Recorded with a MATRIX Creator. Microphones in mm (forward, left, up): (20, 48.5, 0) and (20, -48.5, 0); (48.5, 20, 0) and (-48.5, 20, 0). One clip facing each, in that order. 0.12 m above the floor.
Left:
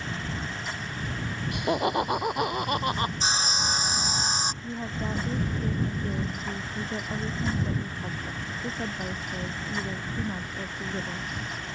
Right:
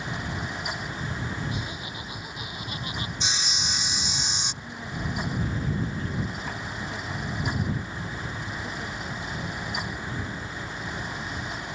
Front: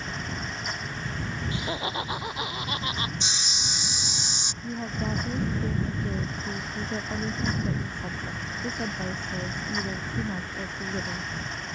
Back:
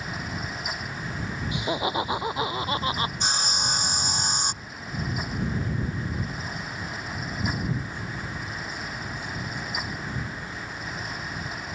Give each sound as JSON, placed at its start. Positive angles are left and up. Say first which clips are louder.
{"t": 1.5, "sound": "laughter", "louder": "left 10 dB, back 6 dB", "azimuth_deg": 105}
{"t": 3.2, "sound": "sawing", "louder": "left 4 dB, back 6 dB", "azimuth_deg": 140}
{"t": 4.6, "sound": "a woman speaking", "louder": "left 2 dB, front 4 dB", "azimuth_deg": 35}